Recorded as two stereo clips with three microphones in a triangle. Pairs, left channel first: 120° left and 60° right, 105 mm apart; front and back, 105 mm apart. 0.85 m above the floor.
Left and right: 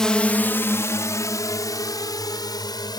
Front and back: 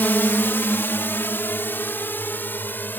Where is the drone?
45° left; by 3.0 s 70° left.